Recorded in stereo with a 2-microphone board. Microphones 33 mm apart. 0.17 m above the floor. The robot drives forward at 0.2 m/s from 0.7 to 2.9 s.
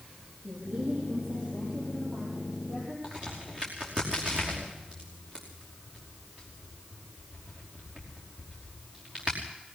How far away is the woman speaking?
About 8 m.